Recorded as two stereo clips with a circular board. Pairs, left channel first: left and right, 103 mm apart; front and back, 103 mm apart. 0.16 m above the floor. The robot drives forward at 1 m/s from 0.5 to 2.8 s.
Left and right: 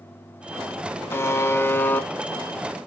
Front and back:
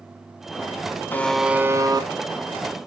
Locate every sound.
1.1 s a buzzer: 50° left, 0.8 m; by 2.1 s 160° left, 1.0 m